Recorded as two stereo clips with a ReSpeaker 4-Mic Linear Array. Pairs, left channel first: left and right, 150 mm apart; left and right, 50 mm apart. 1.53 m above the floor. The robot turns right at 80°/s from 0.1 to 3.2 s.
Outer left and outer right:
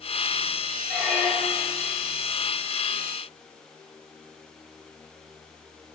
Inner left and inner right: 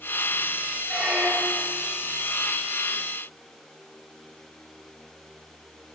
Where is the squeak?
Centre (ahead or behind), 1.1 m; by 1.8 s 20° left (ahead or behind), 1.1 m.